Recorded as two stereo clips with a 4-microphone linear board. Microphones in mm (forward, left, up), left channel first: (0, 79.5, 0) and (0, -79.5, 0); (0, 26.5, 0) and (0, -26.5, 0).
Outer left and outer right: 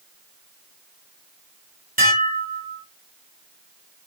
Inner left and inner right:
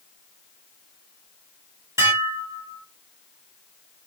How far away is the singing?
I don't hear singing.